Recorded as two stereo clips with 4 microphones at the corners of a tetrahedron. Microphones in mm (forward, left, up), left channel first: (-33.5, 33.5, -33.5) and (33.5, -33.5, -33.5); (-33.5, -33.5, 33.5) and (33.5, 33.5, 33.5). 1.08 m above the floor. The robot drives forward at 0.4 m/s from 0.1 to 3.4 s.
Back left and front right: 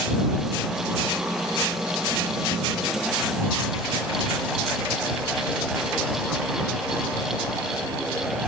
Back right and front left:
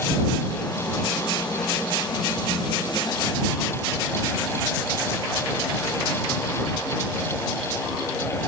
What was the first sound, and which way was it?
Only background noise.